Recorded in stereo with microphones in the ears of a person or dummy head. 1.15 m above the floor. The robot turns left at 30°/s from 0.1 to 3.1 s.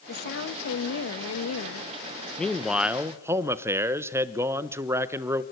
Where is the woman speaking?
130° left, 1.7 m; by 1.9 s 80° left, 1.7 m.